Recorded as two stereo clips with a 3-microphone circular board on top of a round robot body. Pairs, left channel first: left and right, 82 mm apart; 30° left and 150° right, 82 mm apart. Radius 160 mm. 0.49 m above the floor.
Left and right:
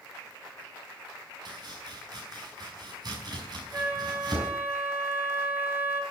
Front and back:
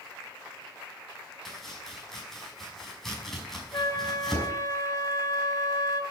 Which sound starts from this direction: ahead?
A flute, at 3.7 s.